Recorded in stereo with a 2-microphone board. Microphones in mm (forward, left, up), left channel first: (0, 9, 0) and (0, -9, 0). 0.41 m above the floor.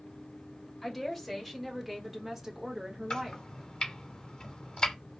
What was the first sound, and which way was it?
A woman speaking, 5° left (ahead or behind).